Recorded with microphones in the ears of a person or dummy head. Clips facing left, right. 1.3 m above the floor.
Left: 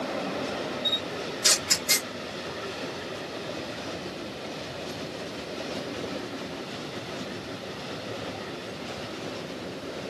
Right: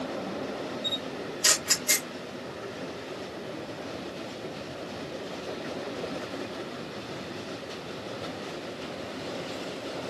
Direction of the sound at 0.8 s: 75° right (ahead or behind).